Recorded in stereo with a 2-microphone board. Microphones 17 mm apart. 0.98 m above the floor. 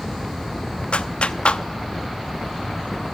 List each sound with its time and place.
0.9 s a clap: 70° left (ahead or behind), 0.8 m